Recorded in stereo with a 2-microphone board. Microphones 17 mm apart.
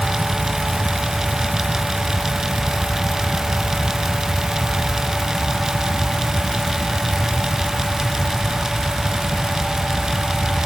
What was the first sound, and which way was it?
Only background noise.